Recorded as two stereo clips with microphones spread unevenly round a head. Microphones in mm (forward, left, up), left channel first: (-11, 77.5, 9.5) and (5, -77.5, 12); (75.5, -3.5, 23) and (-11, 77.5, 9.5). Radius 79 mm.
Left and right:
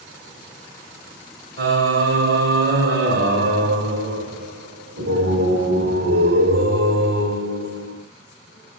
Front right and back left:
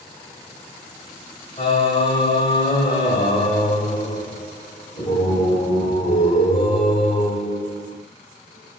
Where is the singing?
105° right, 1.6 m.